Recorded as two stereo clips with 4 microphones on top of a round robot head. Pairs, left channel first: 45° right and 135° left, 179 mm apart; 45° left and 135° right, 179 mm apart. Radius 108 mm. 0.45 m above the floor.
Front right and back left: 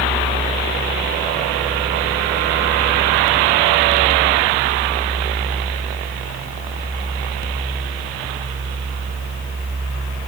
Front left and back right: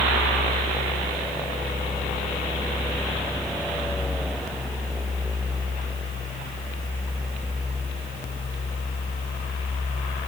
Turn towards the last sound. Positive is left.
No sound to turn to.